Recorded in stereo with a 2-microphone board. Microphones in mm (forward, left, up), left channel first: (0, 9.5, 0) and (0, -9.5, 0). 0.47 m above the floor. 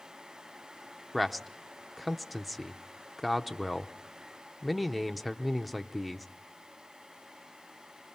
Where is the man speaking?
5° right (ahead or behind), 0.7 m.